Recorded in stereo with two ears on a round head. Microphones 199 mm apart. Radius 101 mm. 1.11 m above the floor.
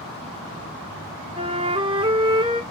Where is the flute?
20° right (ahead or behind), 0.8 m.